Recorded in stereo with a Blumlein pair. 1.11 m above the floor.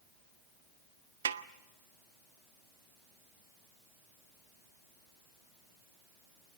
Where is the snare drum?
65° right, 0.6 m.